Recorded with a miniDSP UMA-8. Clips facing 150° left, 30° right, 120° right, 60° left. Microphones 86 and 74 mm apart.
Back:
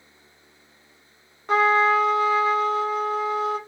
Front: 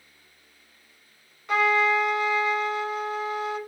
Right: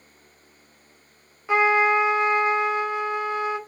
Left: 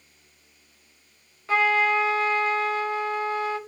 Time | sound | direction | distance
1.5 | a trumpet | straight behind | 0.6 m